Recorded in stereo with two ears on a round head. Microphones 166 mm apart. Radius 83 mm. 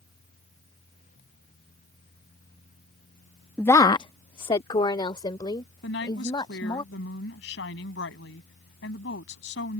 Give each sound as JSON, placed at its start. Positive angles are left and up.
{"t": 3.6, "sound": "a woman speaking", "side_deg": 10}
{"t": 5.8, "sound": "a woman speaking", "side_deg": 70}